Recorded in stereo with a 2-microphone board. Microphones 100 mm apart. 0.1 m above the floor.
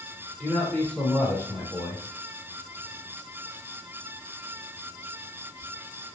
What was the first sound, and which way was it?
A man speaking, 15° left (ahead or behind).